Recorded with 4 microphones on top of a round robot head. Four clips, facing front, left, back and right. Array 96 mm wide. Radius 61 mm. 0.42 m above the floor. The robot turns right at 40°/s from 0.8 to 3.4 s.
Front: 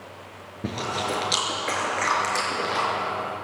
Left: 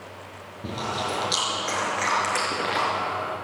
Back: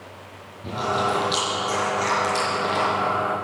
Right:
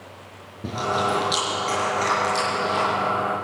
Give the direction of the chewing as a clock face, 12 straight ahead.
12 o'clock.